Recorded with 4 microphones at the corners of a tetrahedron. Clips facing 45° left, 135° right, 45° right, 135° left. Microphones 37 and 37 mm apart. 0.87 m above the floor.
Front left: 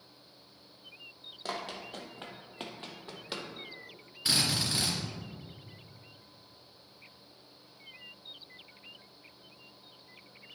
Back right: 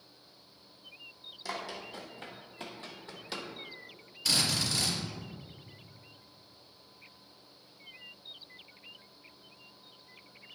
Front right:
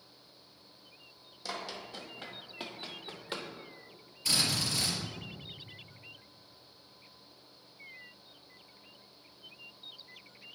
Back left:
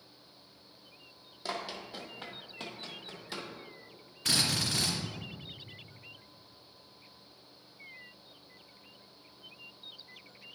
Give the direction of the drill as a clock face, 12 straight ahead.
9 o'clock.